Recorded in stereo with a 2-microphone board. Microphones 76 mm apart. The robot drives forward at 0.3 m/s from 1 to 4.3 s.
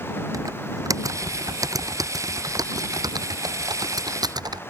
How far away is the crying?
I don't hear crying.